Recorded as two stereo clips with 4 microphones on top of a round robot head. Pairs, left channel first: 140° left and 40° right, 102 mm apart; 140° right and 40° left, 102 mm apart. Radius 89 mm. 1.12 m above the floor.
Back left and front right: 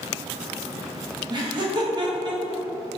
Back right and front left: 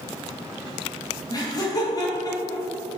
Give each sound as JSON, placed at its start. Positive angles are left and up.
{"t": 1.3, "sound": "laughter", "azimuth_deg": -85, "distance_m": 2.0}